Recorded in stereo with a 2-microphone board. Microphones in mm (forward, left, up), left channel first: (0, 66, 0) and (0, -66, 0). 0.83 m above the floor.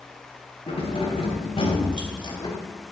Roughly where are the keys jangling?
Left.